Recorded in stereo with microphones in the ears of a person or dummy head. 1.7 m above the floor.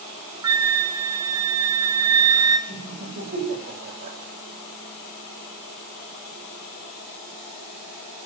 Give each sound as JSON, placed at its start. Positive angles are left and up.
{"t": 0.4, "sound": "a flute", "side_deg": -20, "distance_m": 1.2}
{"t": 2.7, "sound": "laughter", "side_deg": -45, "distance_m": 10.0}